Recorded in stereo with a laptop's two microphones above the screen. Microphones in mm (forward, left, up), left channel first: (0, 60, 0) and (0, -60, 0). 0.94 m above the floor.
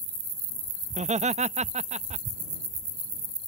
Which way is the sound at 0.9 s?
70° right (ahead or behind).